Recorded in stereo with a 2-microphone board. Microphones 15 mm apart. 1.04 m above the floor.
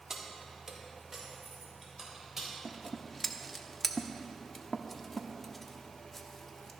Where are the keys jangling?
30° right (ahead or behind), 2 m; by 2.5 s 10° right (ahead or behind), 4 m.